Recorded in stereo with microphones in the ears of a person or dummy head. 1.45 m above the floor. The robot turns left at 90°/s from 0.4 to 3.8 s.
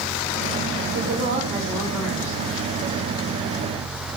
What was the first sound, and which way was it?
A woman speaking, 115° right.